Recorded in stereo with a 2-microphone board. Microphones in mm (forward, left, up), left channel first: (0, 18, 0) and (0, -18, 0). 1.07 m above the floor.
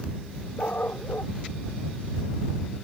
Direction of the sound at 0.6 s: 80° left.